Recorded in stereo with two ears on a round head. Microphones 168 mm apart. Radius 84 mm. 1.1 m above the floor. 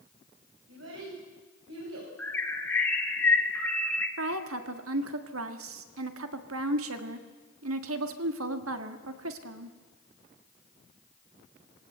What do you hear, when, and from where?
0.7 s a child speaking: 75° right (ahead or behind), 6 m
2.2 s a bird: 10° left (ahead or behind), 2 m
4.2 s a woman speaking: 90° right, 1.8 m